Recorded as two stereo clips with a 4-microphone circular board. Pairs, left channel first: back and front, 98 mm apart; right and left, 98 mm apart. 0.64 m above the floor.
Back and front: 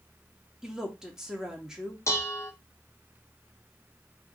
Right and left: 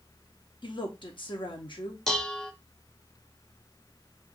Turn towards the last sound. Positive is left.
turn(degrees=-170)